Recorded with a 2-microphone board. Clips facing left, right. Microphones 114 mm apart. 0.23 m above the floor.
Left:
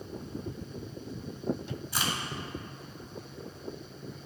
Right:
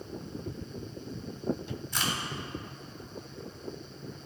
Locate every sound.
1.9 s a crack: 10° left (ahead or behind), 1.1 m